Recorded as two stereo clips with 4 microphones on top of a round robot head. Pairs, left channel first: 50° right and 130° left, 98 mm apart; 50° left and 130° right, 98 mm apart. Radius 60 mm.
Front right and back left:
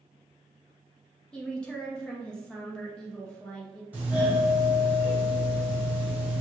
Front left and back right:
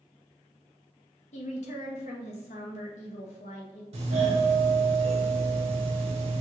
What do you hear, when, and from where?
1.3 s a woman speaking: 30° left, 0.9 m
3.9 s a doorbell: 155° right, 1.5 m